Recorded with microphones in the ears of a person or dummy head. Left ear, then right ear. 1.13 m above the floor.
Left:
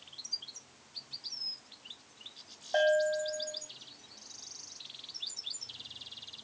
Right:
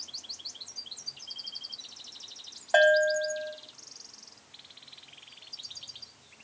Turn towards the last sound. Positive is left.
turn(degrees=-50)  # may be behind; listen again after turning